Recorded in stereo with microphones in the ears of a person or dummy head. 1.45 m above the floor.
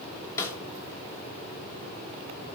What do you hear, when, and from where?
0.4 s a snare drum: 20° left (ahead or behind), 2.5 m